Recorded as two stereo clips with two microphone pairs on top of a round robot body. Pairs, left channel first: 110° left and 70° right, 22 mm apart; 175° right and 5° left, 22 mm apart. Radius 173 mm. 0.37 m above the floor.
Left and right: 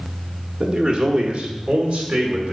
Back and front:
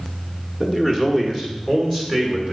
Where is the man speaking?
115° right, 1.3 m; by 2.5 s 110° right, 2.5 m.